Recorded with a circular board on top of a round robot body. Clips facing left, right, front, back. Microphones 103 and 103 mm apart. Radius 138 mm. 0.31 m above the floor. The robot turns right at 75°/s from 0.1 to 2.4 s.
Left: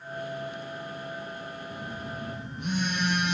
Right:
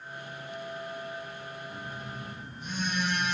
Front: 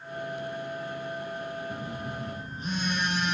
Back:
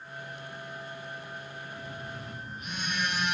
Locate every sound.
1.7 s a phone buzzing: 10° left, 5 m; by 3.4 s 60° left, 5 m